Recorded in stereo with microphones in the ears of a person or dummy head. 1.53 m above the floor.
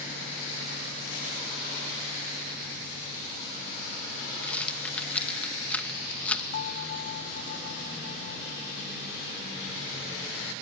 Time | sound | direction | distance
4.4 | a rattle | 5° left (ahead or behind) | ?
6.5 | a bell | 55° left (ahead or behind) | ?